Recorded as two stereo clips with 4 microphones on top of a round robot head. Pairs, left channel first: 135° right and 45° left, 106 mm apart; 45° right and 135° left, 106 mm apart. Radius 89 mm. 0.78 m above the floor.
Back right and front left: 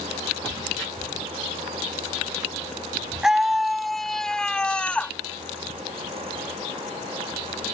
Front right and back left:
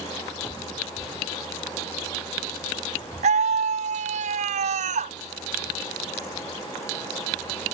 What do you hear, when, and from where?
3.2 s a scream: 130° left; by 5.2 s 145° left